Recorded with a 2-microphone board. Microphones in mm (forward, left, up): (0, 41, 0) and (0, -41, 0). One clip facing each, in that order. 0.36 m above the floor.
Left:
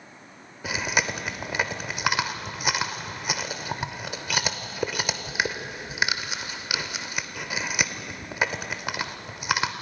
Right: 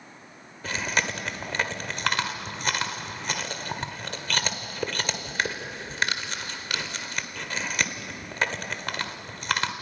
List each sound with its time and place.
0.6 s chewing: 10° left (ahead or behind), 1.3 m